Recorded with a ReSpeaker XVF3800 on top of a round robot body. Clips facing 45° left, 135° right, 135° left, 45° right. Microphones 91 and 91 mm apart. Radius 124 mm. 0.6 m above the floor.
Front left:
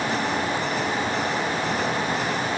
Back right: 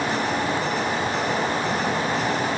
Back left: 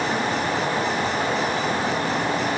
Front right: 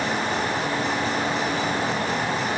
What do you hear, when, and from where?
Only background noise.